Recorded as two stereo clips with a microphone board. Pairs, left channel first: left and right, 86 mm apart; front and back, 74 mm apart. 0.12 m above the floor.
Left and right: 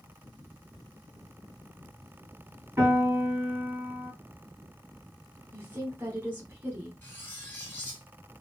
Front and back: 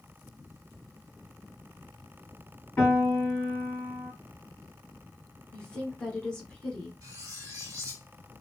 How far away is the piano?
About 2.5 m.